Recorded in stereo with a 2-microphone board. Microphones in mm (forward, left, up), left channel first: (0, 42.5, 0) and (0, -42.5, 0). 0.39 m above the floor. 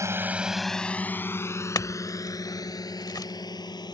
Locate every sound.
0.0 s a drone: 35° right (ahead or behind); by 3.9 s 50° left (ahead or behind)
1.8 s a clink: 45° left (ahead or behind)